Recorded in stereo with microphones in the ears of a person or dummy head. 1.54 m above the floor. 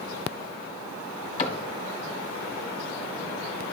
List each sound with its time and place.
1.4 s a cupboard door: 30° left (ahead or behind), 1.5 m